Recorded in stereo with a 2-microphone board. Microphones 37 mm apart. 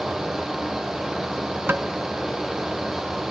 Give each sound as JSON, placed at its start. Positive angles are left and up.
{"t": 1.7, "sound": "tapping", "side_deg": -70, "distance_m": 0.5}